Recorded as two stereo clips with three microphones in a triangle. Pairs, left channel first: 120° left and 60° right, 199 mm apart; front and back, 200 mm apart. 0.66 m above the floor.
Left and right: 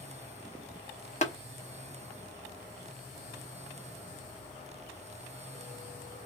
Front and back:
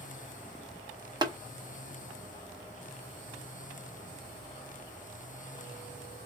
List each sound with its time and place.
1.2 s tapping: 130° left, 0.7 m